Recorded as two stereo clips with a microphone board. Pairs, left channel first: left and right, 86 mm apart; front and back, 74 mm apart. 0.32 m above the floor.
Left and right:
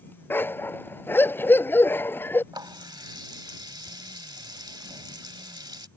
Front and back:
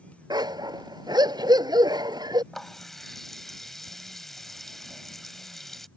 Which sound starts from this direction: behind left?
A dog barking, at 0.3 s.